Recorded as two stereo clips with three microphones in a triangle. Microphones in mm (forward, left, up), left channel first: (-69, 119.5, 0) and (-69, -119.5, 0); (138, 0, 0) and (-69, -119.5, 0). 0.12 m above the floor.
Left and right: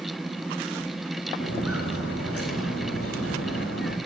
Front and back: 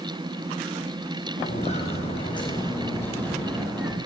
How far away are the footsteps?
About 2.5 m.